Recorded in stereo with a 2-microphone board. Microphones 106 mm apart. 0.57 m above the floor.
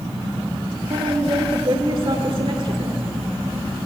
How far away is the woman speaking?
About 1.4 m.